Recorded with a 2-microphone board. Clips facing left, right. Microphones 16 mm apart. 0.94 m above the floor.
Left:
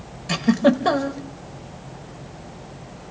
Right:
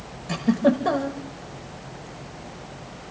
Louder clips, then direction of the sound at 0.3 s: Left 3 dB; 40° left (ahead or behind).